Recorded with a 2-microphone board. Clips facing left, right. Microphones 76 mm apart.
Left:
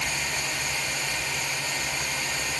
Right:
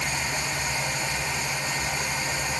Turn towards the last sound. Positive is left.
No sound to turn to.